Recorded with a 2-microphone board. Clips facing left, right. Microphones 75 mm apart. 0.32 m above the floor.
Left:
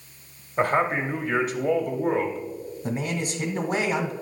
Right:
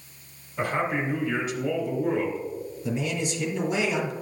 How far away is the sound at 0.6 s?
About 1.2 m.